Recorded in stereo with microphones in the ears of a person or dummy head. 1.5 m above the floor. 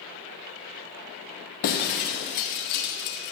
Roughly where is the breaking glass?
Left.